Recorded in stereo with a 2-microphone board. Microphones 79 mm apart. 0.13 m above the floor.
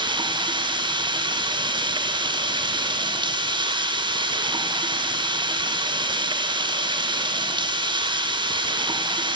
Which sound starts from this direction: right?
Running water, at 0.0 s.